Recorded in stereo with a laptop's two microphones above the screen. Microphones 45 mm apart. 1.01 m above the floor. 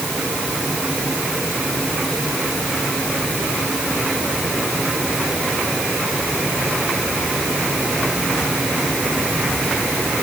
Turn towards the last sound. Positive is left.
No sound to turn to.